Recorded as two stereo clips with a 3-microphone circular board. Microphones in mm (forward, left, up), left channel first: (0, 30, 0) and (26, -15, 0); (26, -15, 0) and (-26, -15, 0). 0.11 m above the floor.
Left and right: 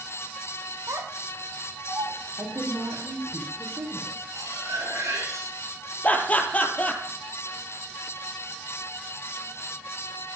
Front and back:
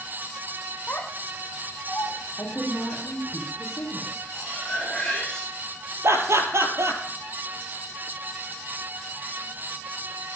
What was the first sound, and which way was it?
A child speaking, 60° right.